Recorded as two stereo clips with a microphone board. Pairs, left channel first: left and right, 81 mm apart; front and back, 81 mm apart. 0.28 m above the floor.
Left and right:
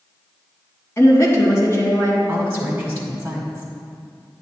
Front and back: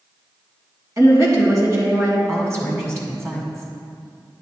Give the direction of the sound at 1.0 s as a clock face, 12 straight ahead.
7 o'clock.